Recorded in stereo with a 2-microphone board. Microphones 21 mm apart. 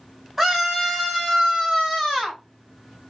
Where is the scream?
10° right (ahead or behind), 1.4 m; by 2.4 s centre (ahead or behind), 1.4 m.